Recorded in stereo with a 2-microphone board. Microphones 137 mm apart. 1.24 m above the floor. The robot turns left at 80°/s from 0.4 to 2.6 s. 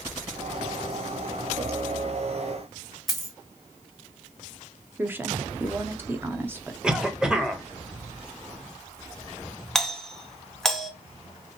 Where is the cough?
5° right (ahead or behind), 0.9 m.